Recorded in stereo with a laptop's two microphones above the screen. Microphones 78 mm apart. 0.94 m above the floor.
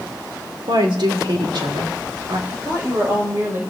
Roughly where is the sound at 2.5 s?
Right.